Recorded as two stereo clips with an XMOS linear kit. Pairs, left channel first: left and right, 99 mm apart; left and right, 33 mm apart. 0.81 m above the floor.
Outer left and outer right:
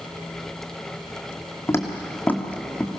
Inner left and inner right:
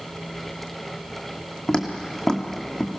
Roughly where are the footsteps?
Left.